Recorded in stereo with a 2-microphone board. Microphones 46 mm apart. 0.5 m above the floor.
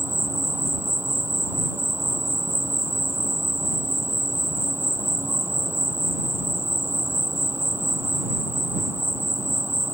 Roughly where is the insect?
Right.